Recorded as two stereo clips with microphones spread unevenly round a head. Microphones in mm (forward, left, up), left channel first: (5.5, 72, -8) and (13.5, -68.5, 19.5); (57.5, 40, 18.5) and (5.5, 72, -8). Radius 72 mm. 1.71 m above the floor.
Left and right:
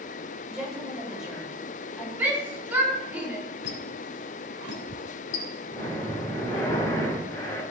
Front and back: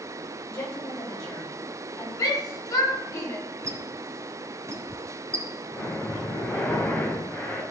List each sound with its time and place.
0.5 s a woman speaking: straight ahead, 9 m
2.2 s a shout: 10° right, 5.5 m
3.6 s a squeak: 100° left, 3.5 m
5.7 s breathing: 15° left, 5.5 m